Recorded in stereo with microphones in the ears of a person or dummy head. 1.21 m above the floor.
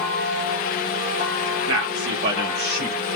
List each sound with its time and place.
1.7 s a man speaking: 65° right (ahead or behind), 3 m; by 3.0 s 45° right (ahead or behind), 3 m